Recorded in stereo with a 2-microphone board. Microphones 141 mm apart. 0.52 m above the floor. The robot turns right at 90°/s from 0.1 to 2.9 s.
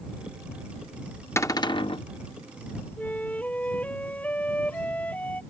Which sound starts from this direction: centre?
A flute, at 3.0 s.